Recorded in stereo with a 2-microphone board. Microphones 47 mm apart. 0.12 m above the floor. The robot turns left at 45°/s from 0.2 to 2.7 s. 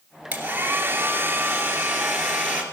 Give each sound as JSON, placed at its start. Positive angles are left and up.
{"t": 0.3, "sound": "a hair dryer", "azimuth_deg": -40, "distance_m": 2.5}